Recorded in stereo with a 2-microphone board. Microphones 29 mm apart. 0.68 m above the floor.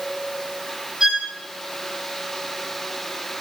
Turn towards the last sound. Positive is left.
turn(degrees=-35)  # may be behind; listen again after turning